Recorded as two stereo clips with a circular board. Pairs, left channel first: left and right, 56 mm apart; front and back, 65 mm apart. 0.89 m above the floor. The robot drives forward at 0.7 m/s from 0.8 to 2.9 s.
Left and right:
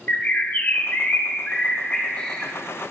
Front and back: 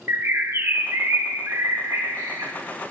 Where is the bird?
140° left, 0.9 m; by 2.5 s 165° left, 1.9 m.